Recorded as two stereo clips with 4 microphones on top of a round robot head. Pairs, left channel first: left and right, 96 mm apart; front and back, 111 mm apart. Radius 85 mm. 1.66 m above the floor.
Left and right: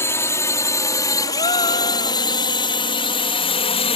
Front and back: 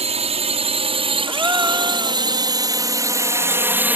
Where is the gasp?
115° left.